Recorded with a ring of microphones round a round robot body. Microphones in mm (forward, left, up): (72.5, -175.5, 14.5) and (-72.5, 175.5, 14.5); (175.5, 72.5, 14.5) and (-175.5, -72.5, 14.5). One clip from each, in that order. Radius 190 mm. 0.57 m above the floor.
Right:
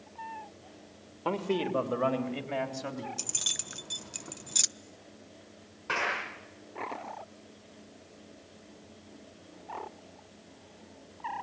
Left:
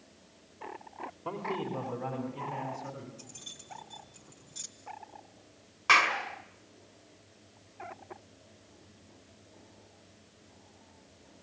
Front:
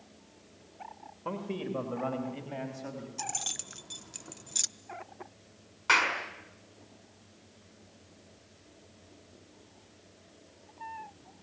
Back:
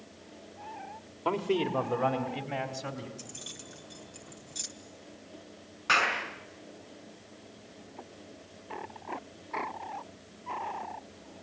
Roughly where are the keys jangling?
Ahead right.